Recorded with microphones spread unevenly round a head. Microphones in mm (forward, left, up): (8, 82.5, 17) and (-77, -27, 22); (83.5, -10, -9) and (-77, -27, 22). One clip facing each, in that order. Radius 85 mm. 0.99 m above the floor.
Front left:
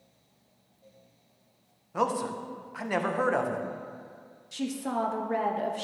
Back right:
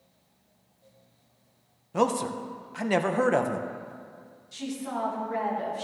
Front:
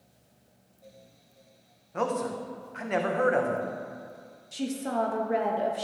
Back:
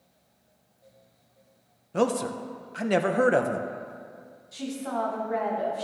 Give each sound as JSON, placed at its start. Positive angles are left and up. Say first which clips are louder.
{"t": 1.9, "sound": "a man speaking", "louder": "back right 3 dB, back 4 dB", "azimuth_deg": -165, "distance_m": 0.7}
{"t": 4.5, "sound": "a woman speaking", "louder": "front left 2 dB, front 2 dB", "azimuth_deg": 55, "distance_m": 1.1}